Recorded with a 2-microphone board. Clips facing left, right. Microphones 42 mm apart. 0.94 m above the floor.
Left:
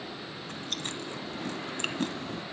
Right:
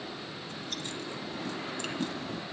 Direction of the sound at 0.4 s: 50° left (ahead or behind).